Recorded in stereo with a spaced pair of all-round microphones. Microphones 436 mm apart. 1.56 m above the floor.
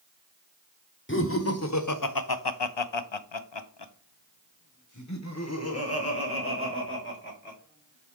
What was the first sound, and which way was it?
Laughter, 25° left (ahead or behind).